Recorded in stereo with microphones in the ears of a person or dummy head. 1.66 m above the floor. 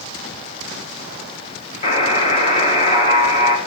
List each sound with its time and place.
1.8 s a buzzer: 40° left (ahead or behind), 1.2 m